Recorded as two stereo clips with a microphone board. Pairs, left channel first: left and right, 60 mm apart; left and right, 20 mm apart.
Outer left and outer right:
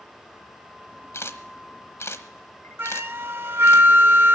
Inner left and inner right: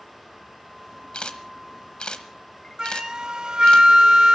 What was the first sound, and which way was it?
A camera shutter, 55° left (ahead or behind).